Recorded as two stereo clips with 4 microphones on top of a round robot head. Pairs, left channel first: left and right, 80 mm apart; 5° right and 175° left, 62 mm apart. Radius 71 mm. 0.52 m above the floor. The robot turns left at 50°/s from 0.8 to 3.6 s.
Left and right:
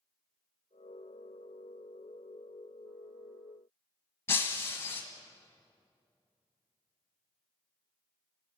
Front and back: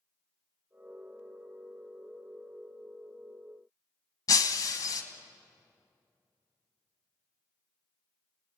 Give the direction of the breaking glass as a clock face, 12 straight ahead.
11 o'clock.